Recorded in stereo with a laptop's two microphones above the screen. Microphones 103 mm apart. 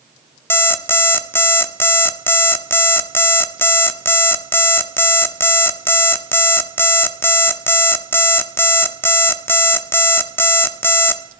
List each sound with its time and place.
0.5 s an alarm clock: 25° left (ahead or behind), 0.6 m